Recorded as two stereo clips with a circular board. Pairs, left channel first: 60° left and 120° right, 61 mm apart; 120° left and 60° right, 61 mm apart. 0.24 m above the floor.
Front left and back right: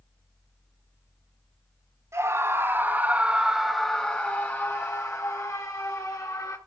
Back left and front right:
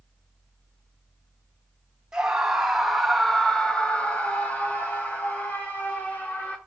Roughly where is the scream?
Behind right.